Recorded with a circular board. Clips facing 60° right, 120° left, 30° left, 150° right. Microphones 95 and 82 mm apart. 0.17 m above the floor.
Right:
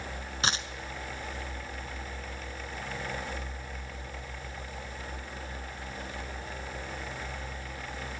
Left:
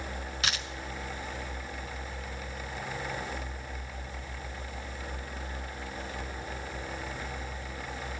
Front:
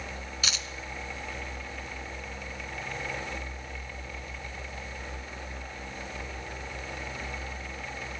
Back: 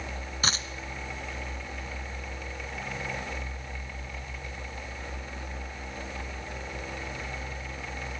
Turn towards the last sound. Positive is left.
turn(degrees=-110)